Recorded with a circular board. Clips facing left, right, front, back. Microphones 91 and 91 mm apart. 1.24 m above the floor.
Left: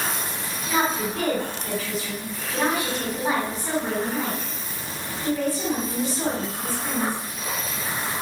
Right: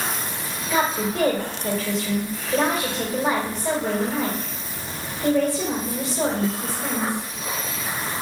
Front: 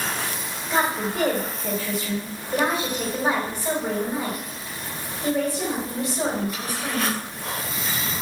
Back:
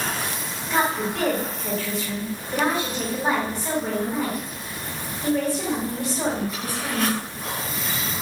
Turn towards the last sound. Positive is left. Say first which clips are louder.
# right 2 dB, even
turn(degrees=-75)